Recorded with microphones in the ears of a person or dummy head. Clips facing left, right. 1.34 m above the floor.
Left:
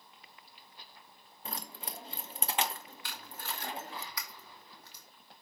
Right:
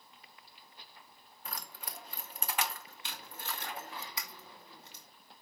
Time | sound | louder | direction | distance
1.4 | keys jangling | left 3 dB | 20° left (ahead or behind) | 0.6 m
3.0 | tape being pulled | even | 25° right (ahead or behind) | 2.0 m